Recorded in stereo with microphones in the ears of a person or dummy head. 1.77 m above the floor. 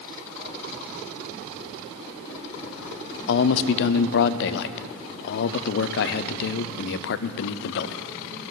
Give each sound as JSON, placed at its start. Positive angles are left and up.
{"t": 3.3, "sound": "a man speaking", "side_deg": 65, "distance_m": 0.5}